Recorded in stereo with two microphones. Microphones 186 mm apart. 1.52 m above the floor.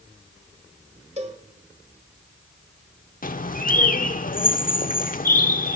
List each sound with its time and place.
1.2 s a cowbell: 35° right (ahead or behind), 1.6 m
3.2 s a bird: 50° left (ahead or behind), 0.6 m